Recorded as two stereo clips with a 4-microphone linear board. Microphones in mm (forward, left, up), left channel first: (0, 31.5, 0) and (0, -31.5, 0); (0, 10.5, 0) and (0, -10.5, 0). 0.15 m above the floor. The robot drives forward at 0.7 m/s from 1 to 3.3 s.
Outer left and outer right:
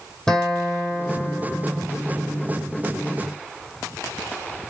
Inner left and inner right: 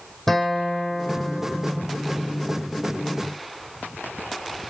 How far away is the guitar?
About 3 m.